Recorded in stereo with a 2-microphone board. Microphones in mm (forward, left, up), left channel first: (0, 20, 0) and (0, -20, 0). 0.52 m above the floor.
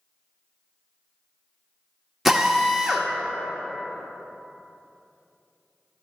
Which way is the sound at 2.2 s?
5° right (ahead or behind).